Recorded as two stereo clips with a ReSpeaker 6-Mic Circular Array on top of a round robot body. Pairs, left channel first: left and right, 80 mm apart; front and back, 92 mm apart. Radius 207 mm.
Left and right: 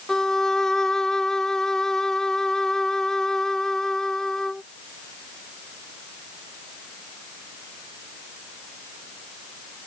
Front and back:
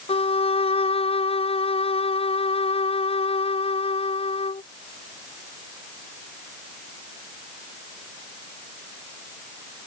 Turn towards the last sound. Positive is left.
turn(degrees=5)